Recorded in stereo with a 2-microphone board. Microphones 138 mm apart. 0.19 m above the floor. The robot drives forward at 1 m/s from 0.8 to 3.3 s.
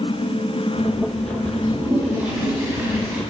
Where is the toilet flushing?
10° right (ahead or behind), 1.8 m; by 3.2 s 15° right (ahead or behind), 1.6 m.